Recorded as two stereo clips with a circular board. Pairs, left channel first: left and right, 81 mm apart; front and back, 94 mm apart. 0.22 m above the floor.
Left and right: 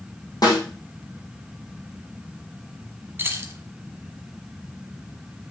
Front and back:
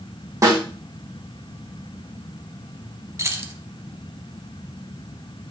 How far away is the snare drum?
About 4.5 m.